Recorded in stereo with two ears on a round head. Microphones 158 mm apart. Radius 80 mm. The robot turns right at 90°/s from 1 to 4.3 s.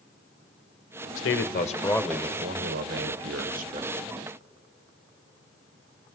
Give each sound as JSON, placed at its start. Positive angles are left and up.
{"t": 1.2, "sound": "a man speaking", "azimuth_deg": 95, "distance_m": 1.1}